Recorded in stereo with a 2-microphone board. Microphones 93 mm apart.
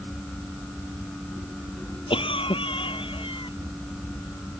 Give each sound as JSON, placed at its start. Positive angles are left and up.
{"t": 2.1, "sound": "a cough", "side_deg": 70}